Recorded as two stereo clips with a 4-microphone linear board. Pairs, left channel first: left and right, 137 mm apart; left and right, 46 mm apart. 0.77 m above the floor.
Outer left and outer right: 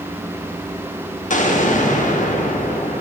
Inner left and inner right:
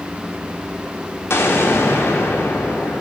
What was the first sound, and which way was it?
An explosion, 65° left (ahead or behind).